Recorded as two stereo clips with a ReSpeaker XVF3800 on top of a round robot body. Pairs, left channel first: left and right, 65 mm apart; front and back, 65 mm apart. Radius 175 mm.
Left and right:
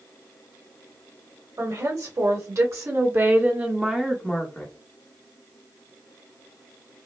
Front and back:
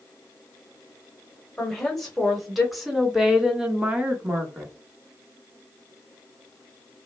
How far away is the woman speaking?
About 2.5 m.